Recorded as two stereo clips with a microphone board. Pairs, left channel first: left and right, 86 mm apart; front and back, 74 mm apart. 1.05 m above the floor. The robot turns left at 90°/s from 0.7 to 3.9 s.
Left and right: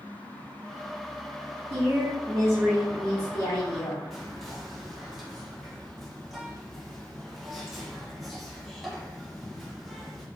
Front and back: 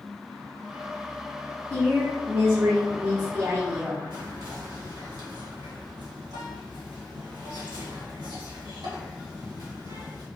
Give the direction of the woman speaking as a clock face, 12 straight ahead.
2 o'clock.